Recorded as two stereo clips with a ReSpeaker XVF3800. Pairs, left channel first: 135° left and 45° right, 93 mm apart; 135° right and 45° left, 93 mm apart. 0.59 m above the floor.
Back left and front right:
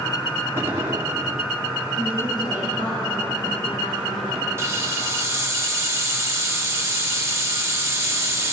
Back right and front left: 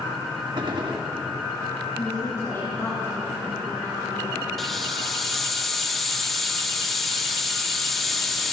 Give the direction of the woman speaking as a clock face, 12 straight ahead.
7 o'clock.